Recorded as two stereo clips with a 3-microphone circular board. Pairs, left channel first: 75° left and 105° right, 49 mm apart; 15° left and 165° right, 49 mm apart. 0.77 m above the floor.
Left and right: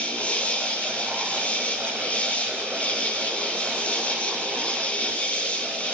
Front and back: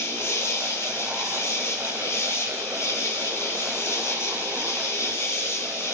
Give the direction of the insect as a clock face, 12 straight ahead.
12 o'clock.